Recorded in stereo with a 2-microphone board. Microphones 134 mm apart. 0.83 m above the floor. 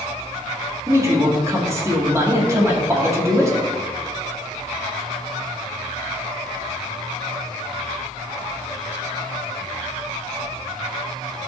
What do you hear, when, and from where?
0.9 s a man speaking: 20° right (ahead or behind), 1.9 m